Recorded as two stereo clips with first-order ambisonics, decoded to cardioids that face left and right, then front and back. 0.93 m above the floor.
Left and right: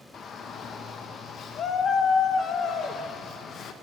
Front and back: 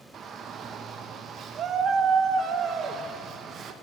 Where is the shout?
135° left, 0.6 m.